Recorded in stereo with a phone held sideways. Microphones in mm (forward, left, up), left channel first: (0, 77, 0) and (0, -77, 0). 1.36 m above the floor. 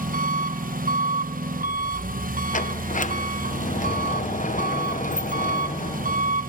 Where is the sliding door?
65° left (ahead or behind), 0.7 m.